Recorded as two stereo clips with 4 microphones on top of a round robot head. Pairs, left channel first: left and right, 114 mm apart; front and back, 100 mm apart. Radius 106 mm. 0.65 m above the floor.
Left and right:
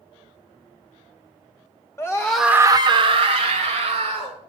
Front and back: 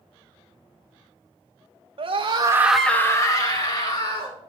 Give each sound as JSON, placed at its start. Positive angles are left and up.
{"t": 2.0, "sound": "a scream", "azimuth_deg": 160, "distance_m": 1.0}